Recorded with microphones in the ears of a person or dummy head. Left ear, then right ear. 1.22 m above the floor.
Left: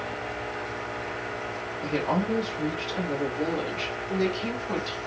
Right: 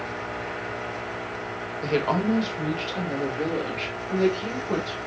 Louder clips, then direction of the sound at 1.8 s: Right 3 dB; 60° right (ahead or behind).